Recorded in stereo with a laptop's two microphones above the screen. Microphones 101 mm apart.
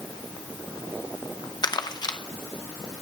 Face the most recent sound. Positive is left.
turn(degrees=40)  # may be behind; listen again after turning